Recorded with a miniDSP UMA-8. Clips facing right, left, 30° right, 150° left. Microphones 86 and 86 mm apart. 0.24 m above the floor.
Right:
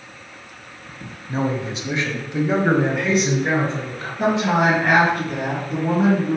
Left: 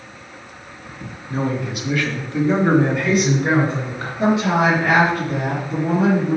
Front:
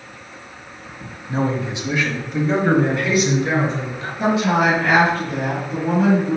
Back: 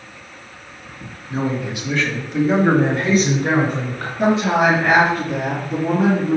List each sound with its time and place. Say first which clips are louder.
1.3 s a man speaking: even, front 1 dB; 55° right, 1.6 m; by 4.1 s 165° left, 2 m
4.2 s a woman speaking: left 1 dB, back 1 dB; 150° right, 4 m